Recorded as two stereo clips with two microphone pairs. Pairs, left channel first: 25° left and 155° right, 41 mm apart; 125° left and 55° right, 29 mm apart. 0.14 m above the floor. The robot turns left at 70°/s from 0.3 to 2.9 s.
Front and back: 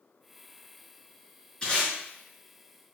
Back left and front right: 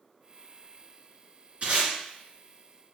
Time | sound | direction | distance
1.6 | tape being pulled | 35° right | 1.8 m